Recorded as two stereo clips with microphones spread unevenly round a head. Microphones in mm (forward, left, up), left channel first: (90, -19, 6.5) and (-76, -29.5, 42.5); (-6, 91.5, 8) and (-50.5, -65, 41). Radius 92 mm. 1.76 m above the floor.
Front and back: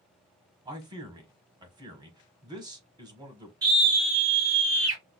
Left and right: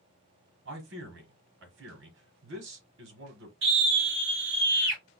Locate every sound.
0.7 s a man speaking: 110° right, 1.2 m
3.6 s a scream: 110° right, 2.5 m